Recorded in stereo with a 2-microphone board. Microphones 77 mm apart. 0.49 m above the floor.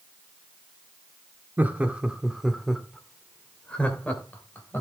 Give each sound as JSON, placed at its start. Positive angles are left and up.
{"t": 1.6, "sound": "laughter", "side_deg": -25, "distance_m": 1.4}